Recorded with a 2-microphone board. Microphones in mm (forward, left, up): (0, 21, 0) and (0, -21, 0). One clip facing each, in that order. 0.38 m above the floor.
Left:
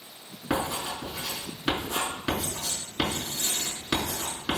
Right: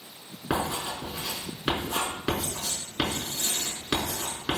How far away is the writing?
About 4.5 m.